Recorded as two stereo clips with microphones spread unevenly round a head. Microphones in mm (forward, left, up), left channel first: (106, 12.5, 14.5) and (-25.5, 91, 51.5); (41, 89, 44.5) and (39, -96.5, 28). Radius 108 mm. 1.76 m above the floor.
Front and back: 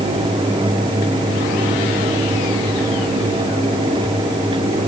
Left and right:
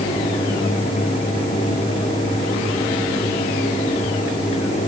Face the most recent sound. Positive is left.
No sound to turn to.